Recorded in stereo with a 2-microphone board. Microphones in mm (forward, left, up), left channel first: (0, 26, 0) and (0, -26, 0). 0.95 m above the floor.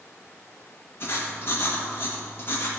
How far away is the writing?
About 1.4 m.